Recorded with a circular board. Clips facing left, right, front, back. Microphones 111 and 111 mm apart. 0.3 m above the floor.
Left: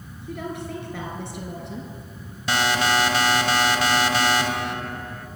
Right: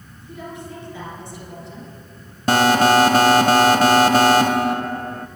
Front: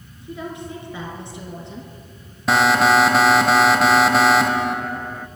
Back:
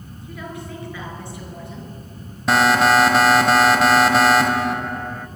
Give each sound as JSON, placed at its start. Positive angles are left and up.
{"t": 0.2, "sound": "a woman speaking", "azimuth_deg": 65, "distance_m": 5.0}
{"t": 2.5, "sound": "an alarm", "azimuth_deg": -90, "distance_m": 0.8}